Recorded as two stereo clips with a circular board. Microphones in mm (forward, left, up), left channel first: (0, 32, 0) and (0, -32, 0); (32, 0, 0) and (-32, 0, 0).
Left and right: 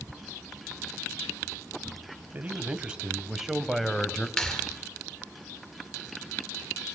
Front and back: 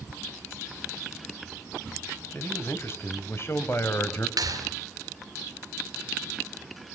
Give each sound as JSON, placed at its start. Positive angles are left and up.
{"t": 2.3, "sound": "a man speaking", "azimuth_deg": -35, "distance_m": 1.9}
{"t": 4.4, "sound": "a clap", "azimuth_deg": 170, "distance_m": 3.5}